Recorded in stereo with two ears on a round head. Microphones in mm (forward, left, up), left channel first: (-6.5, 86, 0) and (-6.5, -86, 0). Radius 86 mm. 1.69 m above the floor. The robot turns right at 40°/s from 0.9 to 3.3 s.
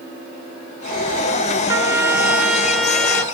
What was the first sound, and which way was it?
A trumpet, 20° right (ahead or behind).